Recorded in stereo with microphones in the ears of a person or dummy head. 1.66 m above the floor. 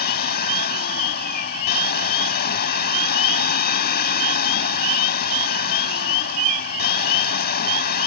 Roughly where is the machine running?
Left.